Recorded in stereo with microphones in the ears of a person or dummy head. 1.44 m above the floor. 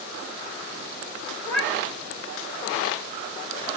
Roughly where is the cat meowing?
Centre.